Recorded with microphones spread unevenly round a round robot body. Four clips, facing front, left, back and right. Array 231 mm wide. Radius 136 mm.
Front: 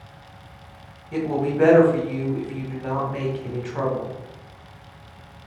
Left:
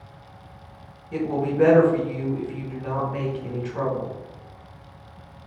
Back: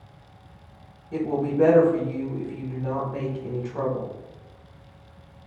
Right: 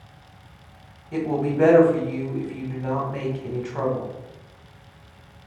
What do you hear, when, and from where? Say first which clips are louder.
1.1 s a woman speaking: right 1 dB, front 1 dB; 125° right, 0.8 m